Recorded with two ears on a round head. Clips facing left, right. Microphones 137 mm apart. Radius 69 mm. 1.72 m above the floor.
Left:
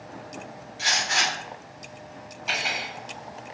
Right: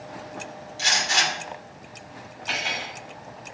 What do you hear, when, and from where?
0.8 s a gunshot: 45° right (ahead or behind), 2.5 m
2.5 s cutlery clinking: 15° left (ahead or behind), 2 m